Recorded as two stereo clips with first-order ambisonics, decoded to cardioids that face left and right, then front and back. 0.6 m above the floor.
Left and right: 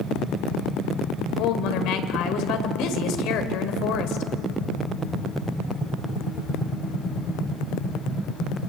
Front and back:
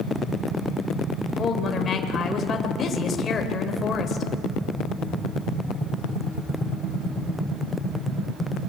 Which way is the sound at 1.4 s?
65° left.